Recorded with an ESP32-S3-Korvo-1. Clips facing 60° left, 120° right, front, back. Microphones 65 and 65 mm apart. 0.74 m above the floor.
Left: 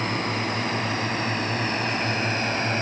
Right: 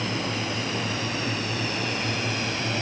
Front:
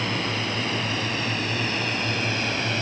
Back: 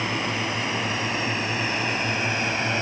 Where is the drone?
105° left; by 2.8 s 110° left.